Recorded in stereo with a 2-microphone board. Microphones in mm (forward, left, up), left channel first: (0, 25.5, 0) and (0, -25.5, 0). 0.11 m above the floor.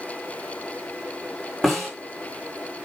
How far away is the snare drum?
About 8 m.